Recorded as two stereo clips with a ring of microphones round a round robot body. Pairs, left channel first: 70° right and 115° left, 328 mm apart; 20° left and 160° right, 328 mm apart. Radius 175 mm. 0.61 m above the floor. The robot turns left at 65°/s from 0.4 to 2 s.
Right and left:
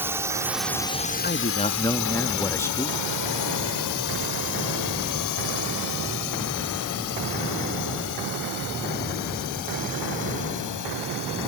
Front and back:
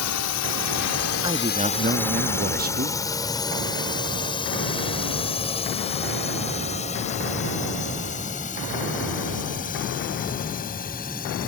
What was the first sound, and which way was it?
A drone, 30° left.